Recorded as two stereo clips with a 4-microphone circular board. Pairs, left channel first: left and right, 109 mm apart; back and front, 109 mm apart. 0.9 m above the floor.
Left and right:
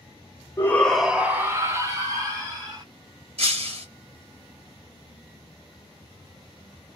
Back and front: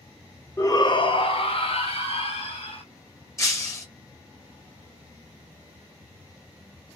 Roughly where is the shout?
Behind left.